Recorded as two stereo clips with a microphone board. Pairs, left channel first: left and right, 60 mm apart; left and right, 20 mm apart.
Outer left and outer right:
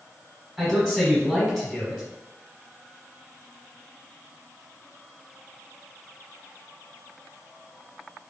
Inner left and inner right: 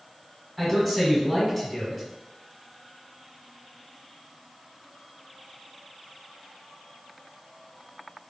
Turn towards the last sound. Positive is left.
turn(degrees=-10)  # may be behind; listen again after turning